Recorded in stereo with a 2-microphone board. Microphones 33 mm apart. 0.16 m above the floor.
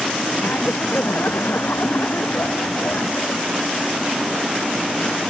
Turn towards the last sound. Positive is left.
turn(degrees=70)  # may be behind; listen again after turning